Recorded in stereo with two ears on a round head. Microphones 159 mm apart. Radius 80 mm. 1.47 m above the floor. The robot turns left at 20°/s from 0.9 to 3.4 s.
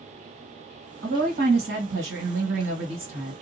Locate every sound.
1.0 s a woman speaking: 50° right, 1.7 m; by 3.3 s 95° right, 1.7 m